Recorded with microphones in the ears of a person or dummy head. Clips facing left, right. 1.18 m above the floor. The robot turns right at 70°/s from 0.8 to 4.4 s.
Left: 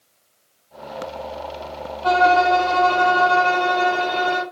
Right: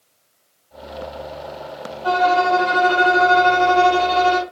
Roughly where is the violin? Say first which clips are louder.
Left 1 dB; behind left.